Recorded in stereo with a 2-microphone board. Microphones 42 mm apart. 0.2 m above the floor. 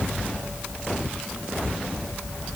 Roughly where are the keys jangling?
No keys jangling in this recording.